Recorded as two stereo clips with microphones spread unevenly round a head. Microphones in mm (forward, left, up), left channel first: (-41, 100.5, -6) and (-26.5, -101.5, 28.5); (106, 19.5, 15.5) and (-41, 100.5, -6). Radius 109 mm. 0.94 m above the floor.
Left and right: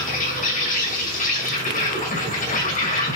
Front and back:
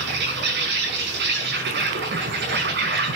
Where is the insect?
145° left, 5.5 m.